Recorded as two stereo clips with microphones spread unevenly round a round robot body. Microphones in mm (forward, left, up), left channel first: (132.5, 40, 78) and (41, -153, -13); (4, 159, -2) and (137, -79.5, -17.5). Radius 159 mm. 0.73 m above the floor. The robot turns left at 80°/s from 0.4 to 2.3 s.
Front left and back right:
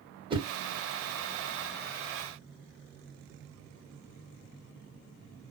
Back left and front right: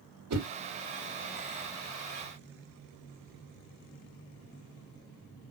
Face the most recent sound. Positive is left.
turn(degrees=140)